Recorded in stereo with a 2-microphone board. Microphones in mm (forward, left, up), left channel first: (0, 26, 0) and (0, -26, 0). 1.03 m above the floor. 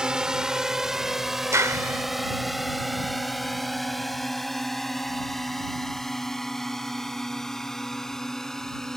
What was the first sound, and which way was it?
A drone, 15° right (ahead or behind).